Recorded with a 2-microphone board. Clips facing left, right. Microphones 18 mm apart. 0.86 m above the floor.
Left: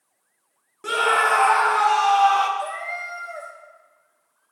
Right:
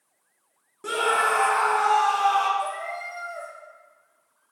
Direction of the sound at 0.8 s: 15° left (ahead or behind).